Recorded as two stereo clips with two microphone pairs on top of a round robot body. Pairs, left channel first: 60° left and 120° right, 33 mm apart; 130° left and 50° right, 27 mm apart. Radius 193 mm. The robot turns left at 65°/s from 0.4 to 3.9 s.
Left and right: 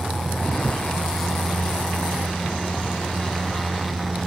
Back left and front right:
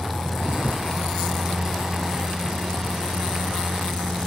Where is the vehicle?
125° left; by 4.3 s 100° right.